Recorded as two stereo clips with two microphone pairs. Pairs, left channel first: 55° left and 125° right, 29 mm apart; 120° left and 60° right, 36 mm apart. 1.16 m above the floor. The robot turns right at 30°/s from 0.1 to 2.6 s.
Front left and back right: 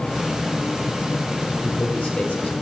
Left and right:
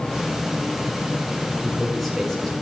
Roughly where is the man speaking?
Ahead.